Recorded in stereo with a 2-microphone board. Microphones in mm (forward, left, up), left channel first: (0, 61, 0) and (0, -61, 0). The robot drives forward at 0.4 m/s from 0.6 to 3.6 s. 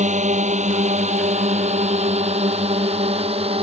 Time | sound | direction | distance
0.0 | a drone | 75° right (ahead or behind) | ?